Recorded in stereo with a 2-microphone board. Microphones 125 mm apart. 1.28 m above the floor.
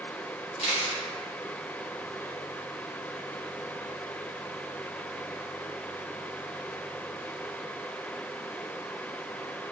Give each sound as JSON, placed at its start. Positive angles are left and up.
{"t": 0.6, "sound": "a camera shutter", "side_deg": 65, "distance_m": 1.2}